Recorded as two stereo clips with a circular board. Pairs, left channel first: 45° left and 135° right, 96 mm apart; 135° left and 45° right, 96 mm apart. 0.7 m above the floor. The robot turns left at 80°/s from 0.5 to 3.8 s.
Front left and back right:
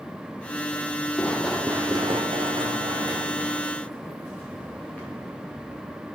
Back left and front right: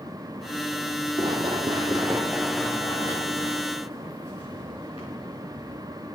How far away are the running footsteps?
About 1.2 m.